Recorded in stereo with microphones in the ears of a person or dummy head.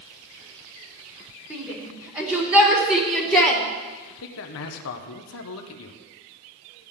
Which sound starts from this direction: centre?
A shout, at 1.5 s.